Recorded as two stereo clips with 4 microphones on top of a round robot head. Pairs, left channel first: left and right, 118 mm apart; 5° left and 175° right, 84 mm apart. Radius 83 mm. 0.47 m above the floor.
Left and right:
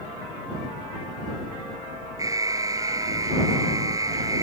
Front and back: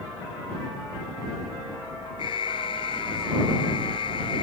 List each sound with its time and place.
2.2 s an alarm: 30° right